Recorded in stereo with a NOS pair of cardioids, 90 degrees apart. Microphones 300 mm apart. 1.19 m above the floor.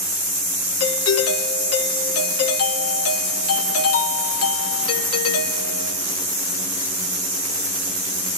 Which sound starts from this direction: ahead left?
A doorbell, at 0.8 s.